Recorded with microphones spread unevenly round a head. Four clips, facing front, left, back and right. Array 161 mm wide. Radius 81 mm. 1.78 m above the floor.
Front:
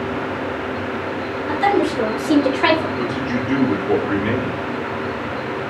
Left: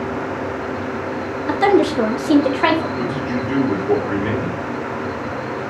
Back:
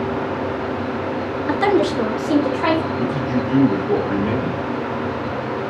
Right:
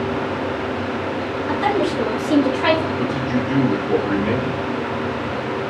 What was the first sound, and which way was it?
A woman speaking, 125° left.